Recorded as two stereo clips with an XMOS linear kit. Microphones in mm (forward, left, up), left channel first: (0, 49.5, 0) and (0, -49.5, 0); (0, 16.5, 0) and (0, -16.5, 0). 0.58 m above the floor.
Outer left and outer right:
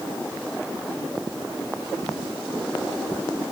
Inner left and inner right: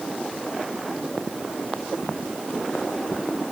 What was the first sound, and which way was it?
Only background noise.